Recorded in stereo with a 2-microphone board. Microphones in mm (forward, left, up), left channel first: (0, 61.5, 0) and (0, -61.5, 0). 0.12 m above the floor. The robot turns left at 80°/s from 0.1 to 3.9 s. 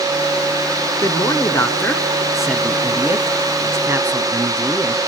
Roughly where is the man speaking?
Left.